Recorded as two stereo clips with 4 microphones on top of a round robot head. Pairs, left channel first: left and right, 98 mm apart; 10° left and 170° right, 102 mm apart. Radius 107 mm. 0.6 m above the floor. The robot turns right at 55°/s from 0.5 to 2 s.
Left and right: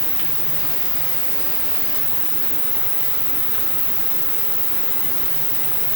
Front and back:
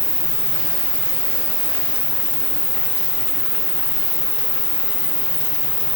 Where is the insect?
160° right, 1.8 m; by 6.0 s 75° right, 1.8 m.